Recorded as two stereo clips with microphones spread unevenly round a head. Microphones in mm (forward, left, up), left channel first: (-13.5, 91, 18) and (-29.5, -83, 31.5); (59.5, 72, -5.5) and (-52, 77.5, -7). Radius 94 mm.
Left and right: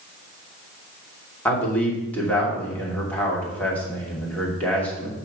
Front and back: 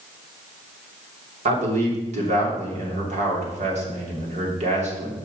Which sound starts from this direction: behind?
A man speaking, at 1.4 s.